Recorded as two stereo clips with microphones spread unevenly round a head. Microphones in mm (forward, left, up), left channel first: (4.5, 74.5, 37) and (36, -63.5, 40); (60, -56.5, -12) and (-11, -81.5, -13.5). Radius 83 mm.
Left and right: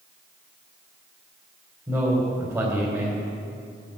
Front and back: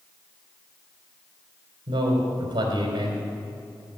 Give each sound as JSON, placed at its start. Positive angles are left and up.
{"t": 1.9, "sound": "a man speaking", "azimuth_deg": -150, "distance_m": 3.0}